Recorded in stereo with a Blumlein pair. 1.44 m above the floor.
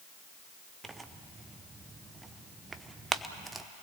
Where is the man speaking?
I don't hear a man speaking.